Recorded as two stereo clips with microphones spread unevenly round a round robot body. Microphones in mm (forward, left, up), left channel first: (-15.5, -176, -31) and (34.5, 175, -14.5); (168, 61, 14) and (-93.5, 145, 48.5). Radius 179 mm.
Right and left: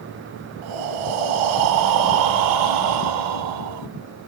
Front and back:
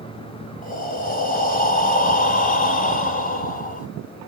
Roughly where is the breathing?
Ahead left.